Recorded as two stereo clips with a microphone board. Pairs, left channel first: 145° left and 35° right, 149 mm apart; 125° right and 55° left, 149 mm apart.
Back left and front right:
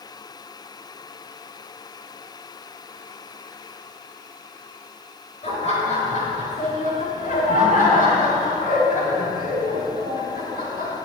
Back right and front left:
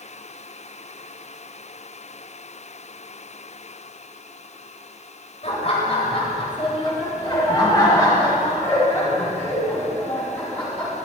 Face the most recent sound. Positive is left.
turn(degrees=155)